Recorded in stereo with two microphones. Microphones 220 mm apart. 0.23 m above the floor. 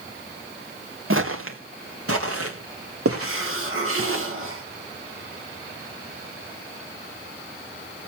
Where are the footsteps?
70° right (ahead or behind), 2.0 m; by 4.2 s 80° right, 5 m.